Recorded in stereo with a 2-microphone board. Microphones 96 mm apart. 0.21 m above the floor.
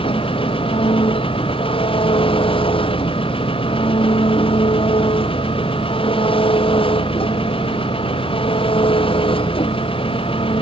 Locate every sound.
0.0 s an engine running: 70° left (ahead or behind)